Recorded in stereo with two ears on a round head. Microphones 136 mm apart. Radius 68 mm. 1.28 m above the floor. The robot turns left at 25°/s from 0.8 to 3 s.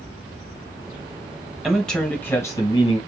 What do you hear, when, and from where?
1.6 s a man speaking: straight behind, 1.1 m; by 3.0 s 150° left, 1.1 m